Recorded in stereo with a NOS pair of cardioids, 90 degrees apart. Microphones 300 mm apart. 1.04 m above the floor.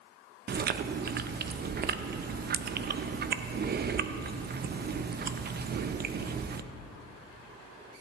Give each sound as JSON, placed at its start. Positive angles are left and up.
{"t": 0.5, "sound": "chewing", "azimuth_deg": -35, "distance_m": 0.6}